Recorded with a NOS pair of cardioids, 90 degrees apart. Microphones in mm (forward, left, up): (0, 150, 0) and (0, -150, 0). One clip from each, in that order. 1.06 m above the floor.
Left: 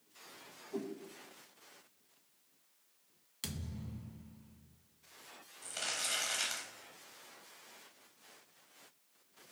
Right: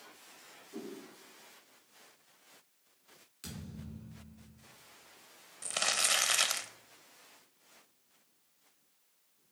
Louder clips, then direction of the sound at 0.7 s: Left 4 dB; 40° left.